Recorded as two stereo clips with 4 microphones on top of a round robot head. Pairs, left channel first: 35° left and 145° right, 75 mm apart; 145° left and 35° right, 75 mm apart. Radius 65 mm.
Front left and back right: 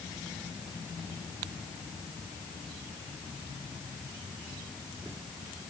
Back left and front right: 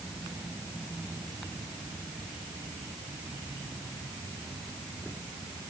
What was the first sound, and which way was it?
Only background noise.